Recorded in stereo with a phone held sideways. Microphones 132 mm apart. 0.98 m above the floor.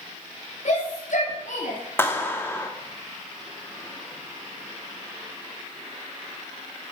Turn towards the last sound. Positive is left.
turn(degrees=20)  # may be behind; listen again after turning